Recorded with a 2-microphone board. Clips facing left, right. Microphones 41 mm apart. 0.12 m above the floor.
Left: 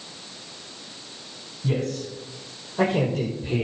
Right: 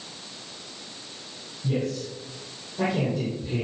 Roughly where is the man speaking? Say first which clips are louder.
Left 1 dB; left.